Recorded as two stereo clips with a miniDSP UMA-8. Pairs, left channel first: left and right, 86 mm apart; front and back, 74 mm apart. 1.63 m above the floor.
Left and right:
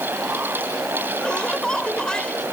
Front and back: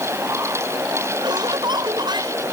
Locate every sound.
1.2 s laughter: 170° left